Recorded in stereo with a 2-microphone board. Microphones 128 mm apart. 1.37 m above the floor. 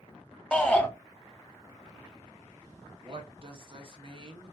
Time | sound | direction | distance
0.5 | a shout | 10° left (ahead or behind) | 0.7 m
3.0 | a woman speaking | 45° right (ahead or behind) | 0.8 m